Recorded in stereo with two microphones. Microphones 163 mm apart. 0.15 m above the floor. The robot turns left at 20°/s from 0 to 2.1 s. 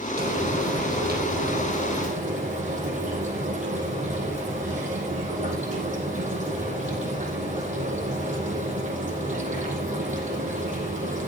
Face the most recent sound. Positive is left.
turn(degrees=-130)